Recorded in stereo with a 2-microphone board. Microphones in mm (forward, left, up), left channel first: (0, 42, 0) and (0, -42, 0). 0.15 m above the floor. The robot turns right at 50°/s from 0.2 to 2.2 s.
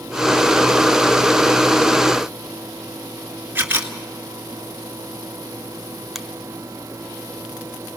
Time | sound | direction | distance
3.5 | a camera shutter | 25° right (ahead or behind) | 1.8 m
6.2 | a finger snap | centre (ahead or behind) | 0.9 m